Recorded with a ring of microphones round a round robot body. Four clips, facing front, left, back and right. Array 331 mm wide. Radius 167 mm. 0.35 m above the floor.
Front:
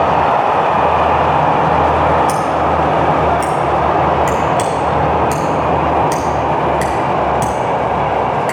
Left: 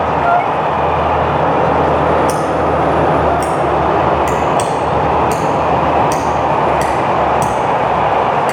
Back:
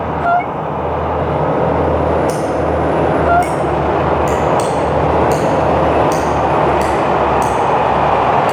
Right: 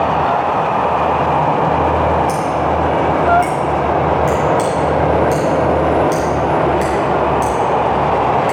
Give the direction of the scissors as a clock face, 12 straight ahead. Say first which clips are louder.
Left 2 dB, front 1 dB; 10 o'clock.